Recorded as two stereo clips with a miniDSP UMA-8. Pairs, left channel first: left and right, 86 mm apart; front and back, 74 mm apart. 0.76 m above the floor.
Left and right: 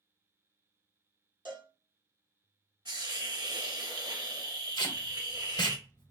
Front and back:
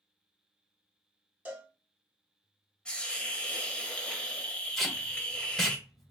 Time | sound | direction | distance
1.4 | a cowbell | 115° right | 0.9 m
2.9 | a hiss | 75° right | 1.0 m
4.8 | tape being pulled | 80° left | 1.0 m